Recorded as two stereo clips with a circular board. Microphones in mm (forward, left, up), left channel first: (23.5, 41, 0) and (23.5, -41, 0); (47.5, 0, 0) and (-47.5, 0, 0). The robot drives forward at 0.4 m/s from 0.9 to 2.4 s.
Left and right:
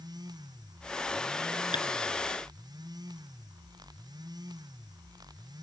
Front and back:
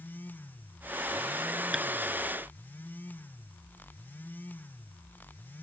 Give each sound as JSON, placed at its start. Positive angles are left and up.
{"t": 1.7, "sound": "tapping", "azimuth_deg": 95}